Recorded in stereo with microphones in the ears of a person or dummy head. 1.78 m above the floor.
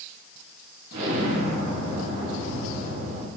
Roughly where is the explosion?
Right.